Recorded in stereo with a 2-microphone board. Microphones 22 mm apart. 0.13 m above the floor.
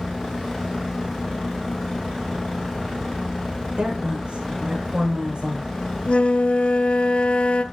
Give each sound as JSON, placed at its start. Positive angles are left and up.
{"t": 3.7, "sound": "a woman speaking", "side_deg": -50, "distance_m": 8.0}
{"t": 6.1, "sound": "a flute", "side_deg": 60, "distance_m": 1.1}